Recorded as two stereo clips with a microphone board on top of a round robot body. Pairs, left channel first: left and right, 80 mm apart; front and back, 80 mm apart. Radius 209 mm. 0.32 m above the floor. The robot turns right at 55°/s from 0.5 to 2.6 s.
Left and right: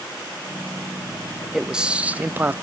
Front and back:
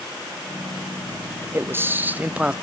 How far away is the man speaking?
About 0.9 m.